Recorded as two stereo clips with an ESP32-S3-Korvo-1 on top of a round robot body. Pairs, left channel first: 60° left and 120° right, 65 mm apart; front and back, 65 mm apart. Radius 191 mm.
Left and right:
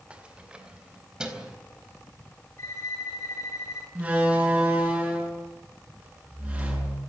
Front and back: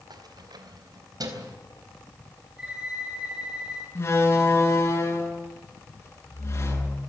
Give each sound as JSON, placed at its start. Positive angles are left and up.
{"t": 0.1, "sound": "keys jangling", "azimuth_deg": 165, "distance_m": 2.0}
{"t": 2.6, "sound": "a violin", "azimuth_deg": 105, "distance_m": 10.0}
{"t": 4.0, "sound": "a door slam", "azimuth_deg": -45, "distance_m": 8.0}